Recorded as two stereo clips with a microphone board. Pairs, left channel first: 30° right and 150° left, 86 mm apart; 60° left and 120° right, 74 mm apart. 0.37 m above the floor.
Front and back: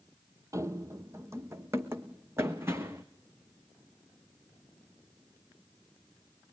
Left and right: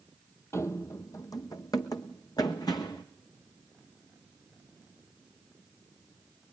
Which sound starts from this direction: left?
Running footsteps, at 0.5 s.